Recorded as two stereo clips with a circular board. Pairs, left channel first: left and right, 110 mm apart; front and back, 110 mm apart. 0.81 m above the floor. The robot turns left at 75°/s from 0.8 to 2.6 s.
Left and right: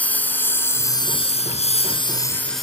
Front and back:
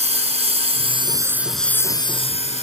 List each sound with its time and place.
0.0 s a lawn mower: 165° left; by 2.6 s straight ahead